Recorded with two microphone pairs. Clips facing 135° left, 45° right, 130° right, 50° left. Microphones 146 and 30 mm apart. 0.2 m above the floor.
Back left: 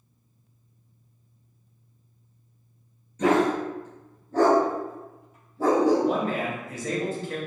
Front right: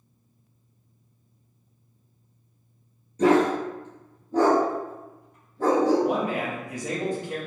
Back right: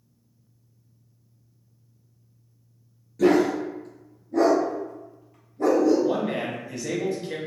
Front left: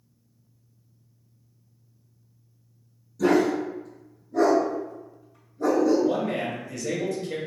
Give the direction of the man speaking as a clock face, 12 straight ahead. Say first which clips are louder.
Even, even; 3 o'clock.